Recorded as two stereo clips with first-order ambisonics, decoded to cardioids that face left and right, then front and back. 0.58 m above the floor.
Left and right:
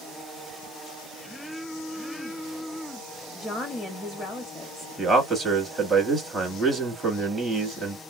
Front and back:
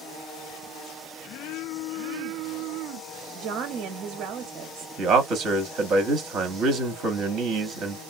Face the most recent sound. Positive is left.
turn(degrees=180)